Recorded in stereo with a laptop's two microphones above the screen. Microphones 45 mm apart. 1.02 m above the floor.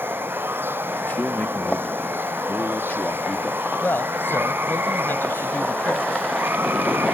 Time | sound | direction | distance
0.0 | running water | 60° right (ahead or behind) | ?
1.1 | a man speaking | 45° left (ahead or behind) | ?
3.8 | a man speaking | 55° left (ahead or behind) | ?